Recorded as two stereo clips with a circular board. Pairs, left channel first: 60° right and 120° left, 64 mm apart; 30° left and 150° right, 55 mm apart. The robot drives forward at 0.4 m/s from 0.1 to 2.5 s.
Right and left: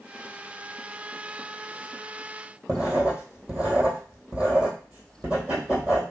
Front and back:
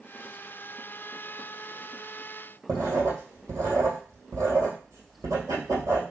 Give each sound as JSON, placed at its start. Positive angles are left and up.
{"t": 2.7, "sound": "writing", "azimuth_deg": -165, "distance_m": 2.5}